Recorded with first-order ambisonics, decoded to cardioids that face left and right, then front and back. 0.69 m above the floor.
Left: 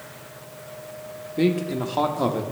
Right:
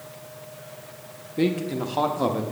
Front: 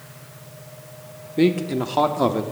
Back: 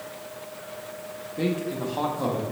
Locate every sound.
1.4 s a man speaking: 5° left, 0.5 m